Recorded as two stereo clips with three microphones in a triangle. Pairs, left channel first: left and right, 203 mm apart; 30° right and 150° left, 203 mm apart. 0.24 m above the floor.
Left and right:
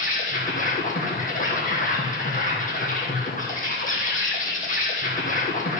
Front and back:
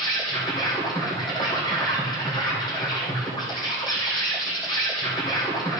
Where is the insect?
40° left, 2.5 m.